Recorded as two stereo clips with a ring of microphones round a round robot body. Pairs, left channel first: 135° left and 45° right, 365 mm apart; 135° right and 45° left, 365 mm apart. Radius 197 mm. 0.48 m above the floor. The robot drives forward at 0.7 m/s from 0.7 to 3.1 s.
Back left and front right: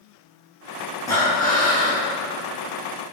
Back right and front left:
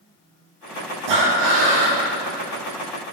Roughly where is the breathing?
Ahead left.